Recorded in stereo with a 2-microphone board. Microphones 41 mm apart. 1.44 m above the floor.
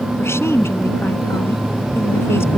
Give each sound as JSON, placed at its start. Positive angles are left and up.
{"t": 0.2, "sound": "a woman speaking", "side_deg": 90}